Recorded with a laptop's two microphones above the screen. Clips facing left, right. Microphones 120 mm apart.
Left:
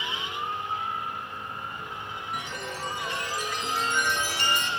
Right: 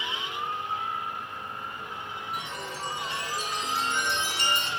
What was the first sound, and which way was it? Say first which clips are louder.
A chime: left 2 dB; 30° right (ahead or behind).